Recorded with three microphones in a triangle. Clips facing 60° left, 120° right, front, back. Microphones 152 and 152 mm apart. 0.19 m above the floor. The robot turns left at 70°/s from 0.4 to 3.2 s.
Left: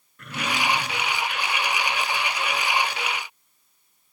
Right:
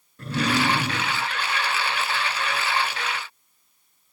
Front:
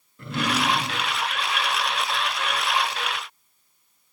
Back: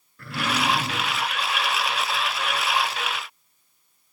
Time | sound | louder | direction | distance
0.2 | a drawer | right 5 dB, front 1 dB | 65° right | ?